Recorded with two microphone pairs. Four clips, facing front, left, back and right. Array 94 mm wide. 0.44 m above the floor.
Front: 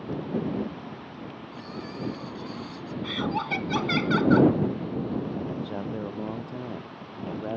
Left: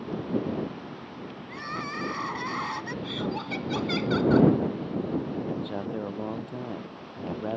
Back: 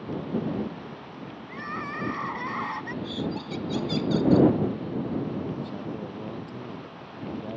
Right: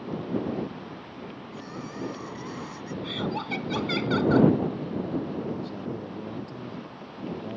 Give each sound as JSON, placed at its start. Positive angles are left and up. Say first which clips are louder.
{"t": 1.5, "sound": "crying", "louder": "left 7 dB, back 7 dB", "azimuth_deg": 135}
{"t": 3.0, "sound": "laughter", "louder": "right 3 dB, front 7 dB", "azimuth_deg": -5}
{"t": 5.5, "sound": "a man speaking", "louder": "left 1 dB, front 1 dB", "azimuth_deg": 60}